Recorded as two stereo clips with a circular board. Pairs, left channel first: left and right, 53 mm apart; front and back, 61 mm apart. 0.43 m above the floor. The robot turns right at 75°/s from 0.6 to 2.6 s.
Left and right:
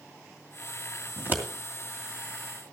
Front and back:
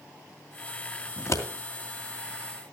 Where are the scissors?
45° right, 2.5 m; by 1.4 s 25° right, 2.5 m.